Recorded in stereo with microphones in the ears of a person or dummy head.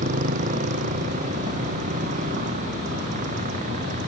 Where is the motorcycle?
45° right (ahead or behind).